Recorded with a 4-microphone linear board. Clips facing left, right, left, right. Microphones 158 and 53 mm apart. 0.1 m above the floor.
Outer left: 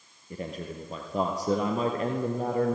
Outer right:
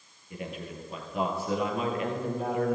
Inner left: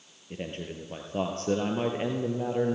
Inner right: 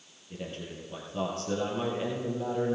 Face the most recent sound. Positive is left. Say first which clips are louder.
# outer left 2 dB, inner left 3 dB
turn(degrees=40)  # may be behind; listen again after turning